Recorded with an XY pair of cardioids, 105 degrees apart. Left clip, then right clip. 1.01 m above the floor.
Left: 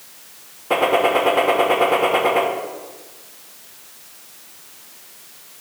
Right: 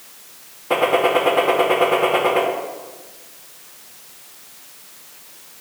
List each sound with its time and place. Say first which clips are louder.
0.7 s a gunshot: even; 5° left, 1.2 m